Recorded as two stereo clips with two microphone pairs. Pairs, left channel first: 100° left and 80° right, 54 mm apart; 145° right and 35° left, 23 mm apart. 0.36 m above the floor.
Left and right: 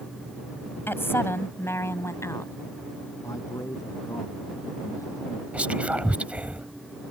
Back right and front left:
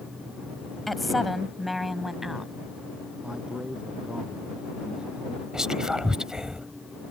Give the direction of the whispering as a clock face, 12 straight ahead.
1 o'clock.